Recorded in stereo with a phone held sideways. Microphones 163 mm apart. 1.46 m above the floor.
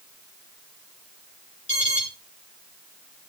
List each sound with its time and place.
1.7 s an alarm: 45° left (ahead or behind), 5 m